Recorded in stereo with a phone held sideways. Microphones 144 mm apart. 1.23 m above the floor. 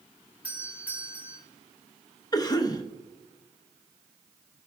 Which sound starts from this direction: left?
A cough, at 2.3 s.